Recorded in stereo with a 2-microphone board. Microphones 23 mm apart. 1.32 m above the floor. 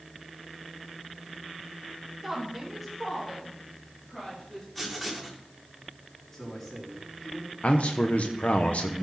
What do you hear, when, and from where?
2.2 s a woman speaking: 10° right (ahead or behind), 1.9 m; by 4.7 s 10° left (ahead or behind), 4 m
4.8 s writing: 10° left (ahead or behind), 2.5 m
6.3 s a man speaking: 10° left (ahead or behind), 3.5 m
7.6 s a man speaking: 70° left (ahead or behind), 0.8 m